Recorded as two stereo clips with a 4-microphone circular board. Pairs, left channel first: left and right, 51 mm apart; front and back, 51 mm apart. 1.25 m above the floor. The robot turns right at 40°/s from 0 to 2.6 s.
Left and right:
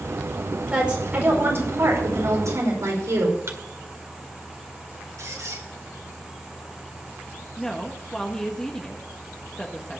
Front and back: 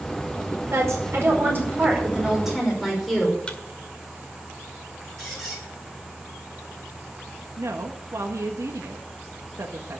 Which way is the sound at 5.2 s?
85° right.